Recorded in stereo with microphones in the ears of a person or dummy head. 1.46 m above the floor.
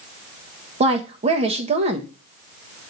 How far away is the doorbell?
I don't hear a doorbell.